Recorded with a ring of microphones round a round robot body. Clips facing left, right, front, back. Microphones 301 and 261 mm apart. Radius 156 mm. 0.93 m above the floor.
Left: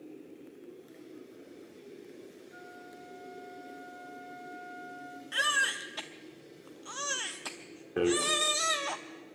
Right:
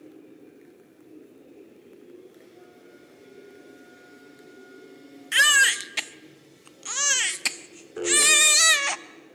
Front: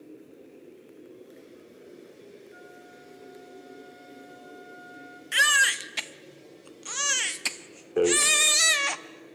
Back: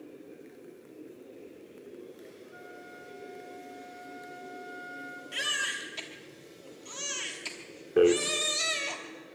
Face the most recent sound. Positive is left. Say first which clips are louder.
# left 2 dB, back 2 dB
turn(degrees=115)